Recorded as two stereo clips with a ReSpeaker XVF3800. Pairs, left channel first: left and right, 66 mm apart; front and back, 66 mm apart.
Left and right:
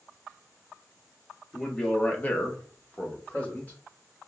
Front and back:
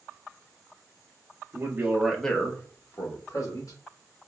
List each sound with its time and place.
1.5 s a man speaking: 165° left, 0.8 m; by 3.8 s 20° left, 1.7 m